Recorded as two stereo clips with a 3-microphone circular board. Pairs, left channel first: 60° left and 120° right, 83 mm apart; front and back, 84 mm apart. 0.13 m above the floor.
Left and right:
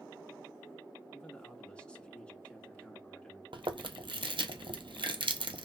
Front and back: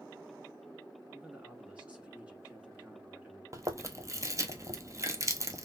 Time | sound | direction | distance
1.1 | a man speaking | 120° left | 1.1 m
3.5 | chewing | 125° right | 0.6 m